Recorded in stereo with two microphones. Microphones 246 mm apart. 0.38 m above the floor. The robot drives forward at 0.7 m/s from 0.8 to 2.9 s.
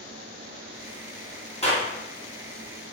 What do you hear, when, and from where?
1.6 s a clap: 25° left (ahead or behind), 3 m; by 1.9 s 30° left (ahead or behind), 3 m